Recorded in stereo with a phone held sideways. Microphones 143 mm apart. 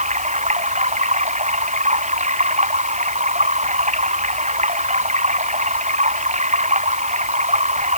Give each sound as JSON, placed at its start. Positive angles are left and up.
{"t": 0.0, "sound": "running water", "side_deg": -55}